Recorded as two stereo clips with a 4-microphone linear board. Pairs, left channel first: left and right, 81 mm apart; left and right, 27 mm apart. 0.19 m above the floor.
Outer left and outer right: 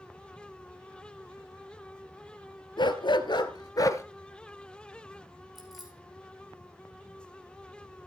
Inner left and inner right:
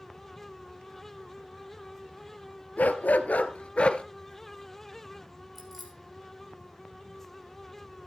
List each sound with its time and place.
2.8 s a dog barking: 75° left (ahead or behind), 1.0 m; by 4.0 s 40° left (ahead or behind), 0.9 m
5.5 s keys jangling: 5° right (ahead or behind), 6.5 m